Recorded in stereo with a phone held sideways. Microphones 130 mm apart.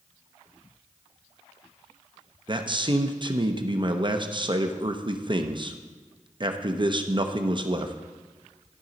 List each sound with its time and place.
2.5 s a man speaking: 35° right (ahead or behind), 0.6 m